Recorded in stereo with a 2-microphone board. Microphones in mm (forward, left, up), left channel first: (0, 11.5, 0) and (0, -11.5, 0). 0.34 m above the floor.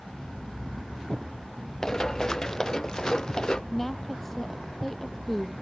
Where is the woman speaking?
5° left (ahead or behind).